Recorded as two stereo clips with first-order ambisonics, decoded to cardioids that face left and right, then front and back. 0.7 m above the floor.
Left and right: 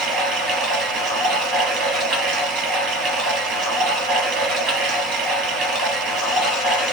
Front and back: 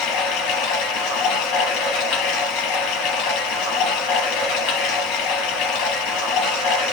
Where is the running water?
35° right, 4 m.